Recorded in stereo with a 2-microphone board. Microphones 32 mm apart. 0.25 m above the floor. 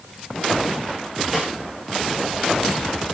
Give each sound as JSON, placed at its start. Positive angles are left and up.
{"t": 1.3, "sound": "a snare drum", "side_deg": -10, "distance_m": 7.5}